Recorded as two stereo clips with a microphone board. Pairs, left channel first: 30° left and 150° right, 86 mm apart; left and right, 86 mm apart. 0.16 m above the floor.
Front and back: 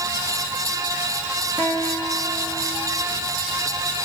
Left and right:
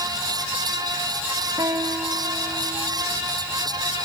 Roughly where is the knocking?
I don't hear knocking.